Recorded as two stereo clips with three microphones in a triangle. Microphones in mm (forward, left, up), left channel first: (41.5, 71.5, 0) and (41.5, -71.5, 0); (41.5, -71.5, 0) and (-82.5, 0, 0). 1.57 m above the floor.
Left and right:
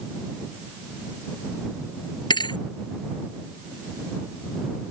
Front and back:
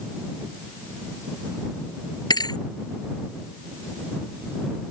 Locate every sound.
2.3 s a thud: 30° left